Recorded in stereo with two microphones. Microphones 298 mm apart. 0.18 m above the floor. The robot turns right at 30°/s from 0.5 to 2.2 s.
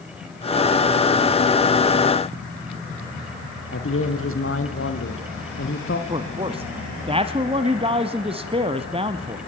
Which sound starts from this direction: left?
A man speaking, at 3.7 s.